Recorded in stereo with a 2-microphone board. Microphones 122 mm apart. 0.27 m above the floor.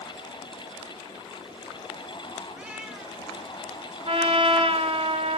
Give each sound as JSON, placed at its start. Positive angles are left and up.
{"t": 2.5, "sound": "a cat meowing", "side_deg": -10, "distance_m": 4.0}
{"t": 4.0, "sound": "a trumpet", "side_deg": -45, "distance_m": 2.5}